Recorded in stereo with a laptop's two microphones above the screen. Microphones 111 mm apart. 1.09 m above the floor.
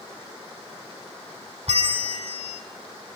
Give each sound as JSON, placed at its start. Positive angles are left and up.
{"t": 1.7, "sound": "a bell", "side_deg": -65, "distance_m": 2.5}